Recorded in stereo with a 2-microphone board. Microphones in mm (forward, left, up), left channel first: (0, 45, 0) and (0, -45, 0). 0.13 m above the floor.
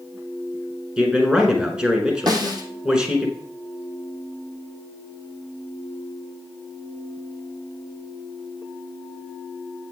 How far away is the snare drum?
About 1.6 m.